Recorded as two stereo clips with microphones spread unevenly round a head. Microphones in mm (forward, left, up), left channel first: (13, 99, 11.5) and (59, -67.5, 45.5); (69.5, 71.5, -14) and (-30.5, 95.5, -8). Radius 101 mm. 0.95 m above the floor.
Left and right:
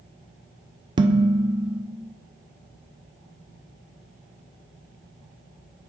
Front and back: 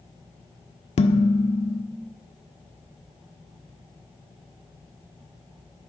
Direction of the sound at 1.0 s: 10° right.